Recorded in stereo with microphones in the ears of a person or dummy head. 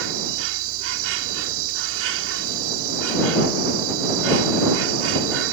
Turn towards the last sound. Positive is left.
turn(degrees=-80)